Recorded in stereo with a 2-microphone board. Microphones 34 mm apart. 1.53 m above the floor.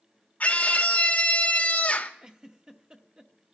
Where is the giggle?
25° right (ahead or behind), 0.9 m.